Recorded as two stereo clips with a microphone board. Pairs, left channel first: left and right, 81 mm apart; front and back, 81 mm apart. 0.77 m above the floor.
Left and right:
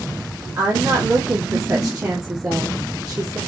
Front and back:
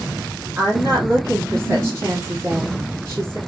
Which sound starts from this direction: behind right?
A woman speaking, at 0.6 s.